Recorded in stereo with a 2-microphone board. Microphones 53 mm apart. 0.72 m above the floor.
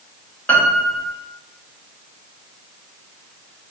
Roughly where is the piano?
Left.